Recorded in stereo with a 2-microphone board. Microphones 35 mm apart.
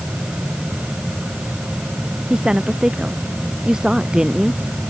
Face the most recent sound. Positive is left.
turn(degrees=-20)  # may be behind; listen again after turning